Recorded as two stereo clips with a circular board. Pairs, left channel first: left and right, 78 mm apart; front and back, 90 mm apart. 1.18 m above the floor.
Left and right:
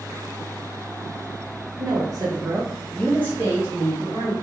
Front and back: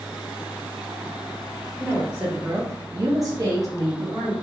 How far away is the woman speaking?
About 0.7 m.